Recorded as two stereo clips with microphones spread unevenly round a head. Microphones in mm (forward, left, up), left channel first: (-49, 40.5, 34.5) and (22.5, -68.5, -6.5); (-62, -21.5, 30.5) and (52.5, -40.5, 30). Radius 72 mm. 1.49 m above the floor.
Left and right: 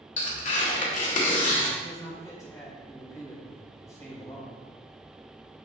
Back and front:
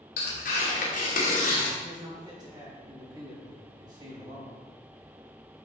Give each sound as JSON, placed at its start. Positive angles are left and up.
{"t": 0.2, "sound": "tearing paper", "azimuth_deg": 155, "distance_m": 2.5}
{"t": 1.8, "sound": "a man speaking", "azimuth_deg": 55, "distance_m": 2.5}